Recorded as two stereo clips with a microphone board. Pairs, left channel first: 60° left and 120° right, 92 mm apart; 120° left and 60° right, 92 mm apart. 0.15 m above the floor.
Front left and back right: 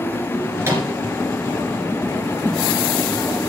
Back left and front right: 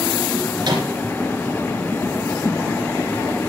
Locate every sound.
0.6 s a microwave: 65° right, 2.5 m